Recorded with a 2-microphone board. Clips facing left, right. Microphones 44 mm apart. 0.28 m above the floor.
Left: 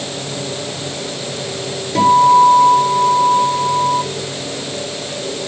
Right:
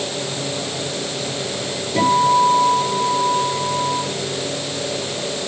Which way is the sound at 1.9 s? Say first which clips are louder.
Left 6 dB; 40° left (ahead or behind).